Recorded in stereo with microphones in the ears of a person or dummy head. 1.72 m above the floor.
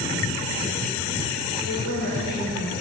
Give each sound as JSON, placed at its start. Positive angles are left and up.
{"t": 1.6, "sound": "a woman speaking", "side_deg": 75, "distance_m": 6.0}